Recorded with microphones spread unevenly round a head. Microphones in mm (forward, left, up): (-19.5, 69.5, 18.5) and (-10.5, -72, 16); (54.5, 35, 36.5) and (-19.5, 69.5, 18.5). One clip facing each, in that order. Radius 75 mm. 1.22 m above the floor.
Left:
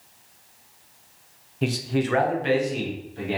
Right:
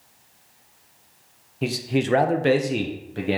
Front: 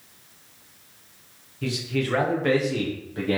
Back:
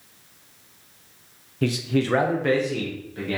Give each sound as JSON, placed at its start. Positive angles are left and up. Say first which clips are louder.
{"t": 1.6, "sound": "a man speaking", "louder": "right 1 dB, back 4 dB", "azimuth_deg": -175, "distance_m": 0.5}